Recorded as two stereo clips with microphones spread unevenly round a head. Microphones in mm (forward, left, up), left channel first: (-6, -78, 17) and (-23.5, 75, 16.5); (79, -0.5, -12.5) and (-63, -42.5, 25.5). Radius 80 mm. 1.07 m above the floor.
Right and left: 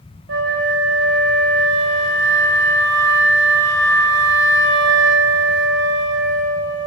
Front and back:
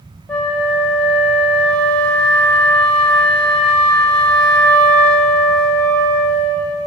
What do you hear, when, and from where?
0.3 s a flute: 100° left, 1.8 m